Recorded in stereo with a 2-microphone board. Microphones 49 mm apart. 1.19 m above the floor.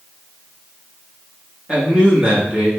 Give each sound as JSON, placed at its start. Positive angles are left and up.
{"t": 1.7, "sound": "a man speaking", "side_deg": -20, "distance_m": 1.7}